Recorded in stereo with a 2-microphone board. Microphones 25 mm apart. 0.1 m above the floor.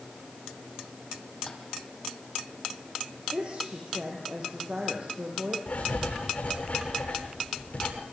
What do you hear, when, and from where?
1.5 s tapping: 30° left (ahead or behind), 4 m
3.3 s a woman speaking: 45° right (ahead or behind), 5 m
5.7 s writing: 65° left (ahead or behind), 9 m